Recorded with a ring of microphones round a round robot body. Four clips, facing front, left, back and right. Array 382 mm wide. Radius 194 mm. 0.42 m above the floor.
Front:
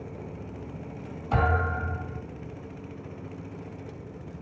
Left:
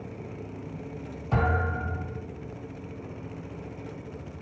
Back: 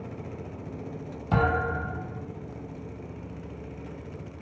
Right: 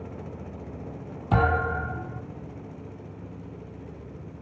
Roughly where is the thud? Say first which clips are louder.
Right 4 dB, back 1 dB; right.